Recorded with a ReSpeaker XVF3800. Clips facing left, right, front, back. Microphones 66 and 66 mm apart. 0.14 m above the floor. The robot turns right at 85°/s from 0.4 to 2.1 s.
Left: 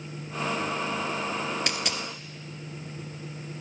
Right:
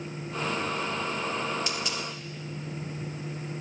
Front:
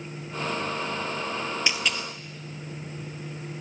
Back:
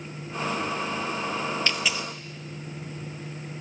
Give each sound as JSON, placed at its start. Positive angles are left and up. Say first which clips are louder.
{"t": 1.7, "sound": "a dropped coin", "louder": "left 1 dB, even", "azimuth_deg": 75, "distance_m": 0.6}